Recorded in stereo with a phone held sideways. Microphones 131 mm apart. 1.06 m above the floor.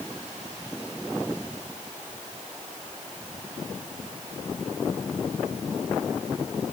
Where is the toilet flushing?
I don't hear a toilet flushing.